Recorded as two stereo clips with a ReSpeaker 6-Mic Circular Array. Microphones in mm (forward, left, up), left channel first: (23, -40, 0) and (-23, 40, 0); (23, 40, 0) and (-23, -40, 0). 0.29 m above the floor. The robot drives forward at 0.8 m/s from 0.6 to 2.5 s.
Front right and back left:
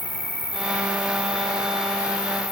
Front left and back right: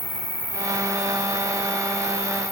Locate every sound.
0.0 s an insect: 130° right, 3 m; by 2.5 s 145° right, 4.5 m